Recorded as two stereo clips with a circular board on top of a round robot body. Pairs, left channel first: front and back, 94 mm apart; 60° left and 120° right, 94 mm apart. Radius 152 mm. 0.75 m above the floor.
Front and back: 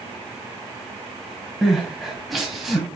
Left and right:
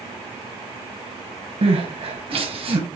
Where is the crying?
90° right, 1.5 m.